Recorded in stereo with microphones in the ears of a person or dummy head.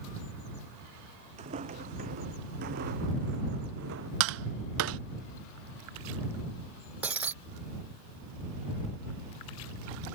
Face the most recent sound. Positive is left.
turn(degrees=0)  # may be behind; listen again after turning